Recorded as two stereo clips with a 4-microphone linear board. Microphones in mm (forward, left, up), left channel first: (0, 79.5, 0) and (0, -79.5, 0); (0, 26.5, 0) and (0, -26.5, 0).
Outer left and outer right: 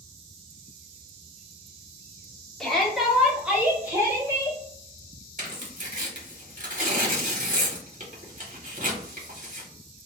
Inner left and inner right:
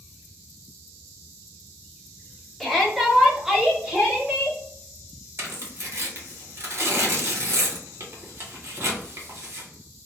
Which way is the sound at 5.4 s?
50° right (ahead or behind).